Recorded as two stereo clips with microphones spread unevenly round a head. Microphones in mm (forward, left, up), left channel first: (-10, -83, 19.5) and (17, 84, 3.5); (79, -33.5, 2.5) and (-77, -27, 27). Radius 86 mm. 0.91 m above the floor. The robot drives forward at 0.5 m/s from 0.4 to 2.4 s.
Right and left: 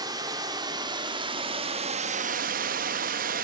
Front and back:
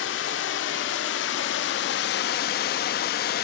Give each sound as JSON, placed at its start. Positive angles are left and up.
{"t": 0.0, "sound": "running water", "azimuth_deg": 15, "distance_m": 1.4}